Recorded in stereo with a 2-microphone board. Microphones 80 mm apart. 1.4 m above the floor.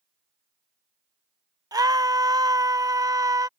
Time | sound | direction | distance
1.7 | a scream | 50° right (ahead or behind) | ?